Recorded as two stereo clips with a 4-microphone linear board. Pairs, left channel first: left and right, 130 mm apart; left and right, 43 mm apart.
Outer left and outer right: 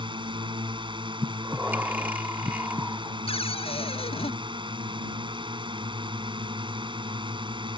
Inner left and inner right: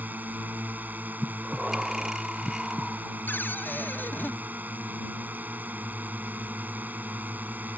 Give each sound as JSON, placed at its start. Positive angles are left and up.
{"t": 0.0, "sound": "a drone", "side_deg": -40}
{"t": 1.2, "sound": "breathing", "side_deg": -15}
{"t": 3.3, "sound": "a cupboard door", "side_deg": 50}